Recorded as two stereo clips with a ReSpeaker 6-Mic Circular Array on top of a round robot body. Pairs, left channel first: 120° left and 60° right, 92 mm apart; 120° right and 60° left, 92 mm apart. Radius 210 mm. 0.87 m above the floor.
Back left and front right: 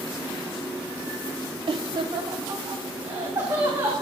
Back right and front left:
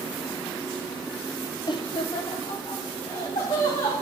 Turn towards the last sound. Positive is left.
turn(degrees=-110)